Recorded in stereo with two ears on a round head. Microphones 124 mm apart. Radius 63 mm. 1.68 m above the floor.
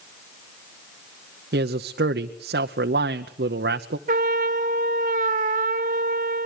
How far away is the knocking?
I don't hear knocking.